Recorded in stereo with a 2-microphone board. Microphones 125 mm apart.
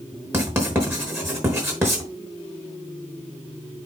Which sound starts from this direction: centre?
Writing, at 0.3 s.